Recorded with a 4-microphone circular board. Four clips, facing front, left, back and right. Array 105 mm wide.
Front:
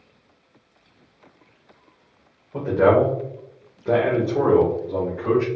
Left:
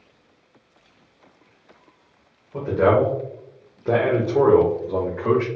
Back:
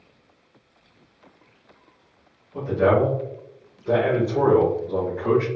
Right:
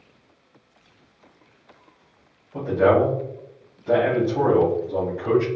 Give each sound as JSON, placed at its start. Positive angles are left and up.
{"t": 2.5, "sound": "a man speaking", "azimuth_deg": 25, "distance_m": 1.9}